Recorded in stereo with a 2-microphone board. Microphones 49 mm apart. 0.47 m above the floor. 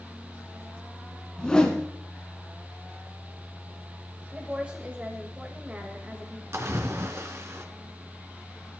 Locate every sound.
1.4 s a whoosh: 15° left (ahead or behind), 2.5 m
4.3 s a woman speaking: 25° right (ahead or behind), 2 m
6.5 s a splash: 65° right (ahead or behind), 1.7 m